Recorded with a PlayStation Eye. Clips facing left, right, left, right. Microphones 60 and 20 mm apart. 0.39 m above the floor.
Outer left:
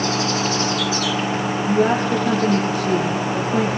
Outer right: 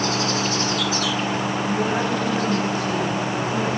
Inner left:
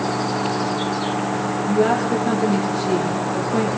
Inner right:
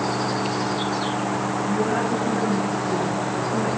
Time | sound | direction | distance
1.7 | a woman speaking | 80° left | 5 m